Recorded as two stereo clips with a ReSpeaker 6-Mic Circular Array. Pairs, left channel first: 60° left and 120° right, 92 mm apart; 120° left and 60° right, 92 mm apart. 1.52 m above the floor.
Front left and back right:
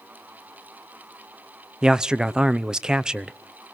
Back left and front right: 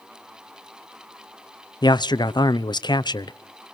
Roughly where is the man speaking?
Behind.